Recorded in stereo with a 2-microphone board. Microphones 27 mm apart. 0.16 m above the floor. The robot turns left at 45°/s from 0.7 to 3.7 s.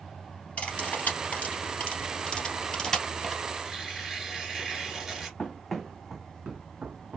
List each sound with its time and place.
0.6 s cutlery clinking: 55° left (ahead or behind), 2 m; by 3.4 s centre (ahead or behind), 2 m
3.6 s tearing paper: 10° right (ahead or behind), 2.5 m; by 5.3 s 15° right (ahead or behind), 2.5 m
5.4 s running footsteps: 20° left (ahead or behind), 0.9 m; by 7.2 s 65° right (ahead or behind), 0.8 m